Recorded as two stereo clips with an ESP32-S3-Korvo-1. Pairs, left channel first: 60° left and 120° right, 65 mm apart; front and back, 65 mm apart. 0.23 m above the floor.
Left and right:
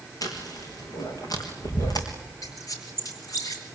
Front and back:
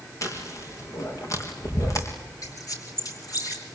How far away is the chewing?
About 4 m.